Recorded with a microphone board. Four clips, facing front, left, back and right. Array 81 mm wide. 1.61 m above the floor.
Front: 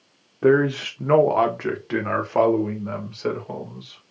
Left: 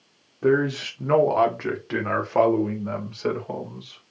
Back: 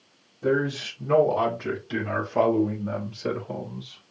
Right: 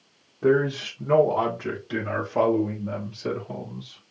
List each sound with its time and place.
0.4 s a man speaking: 5° left, 1.0 m; by 4.0 s 55° left, 3 m